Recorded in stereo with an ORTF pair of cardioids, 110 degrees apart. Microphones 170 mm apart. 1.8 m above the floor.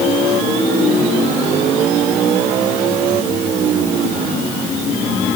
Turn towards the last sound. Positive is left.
No sound to turn to.